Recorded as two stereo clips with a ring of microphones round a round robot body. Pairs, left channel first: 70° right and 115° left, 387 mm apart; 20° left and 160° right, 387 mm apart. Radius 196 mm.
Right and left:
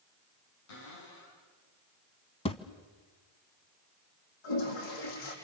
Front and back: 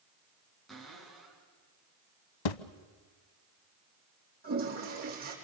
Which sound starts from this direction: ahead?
A thud, at 2.5 s.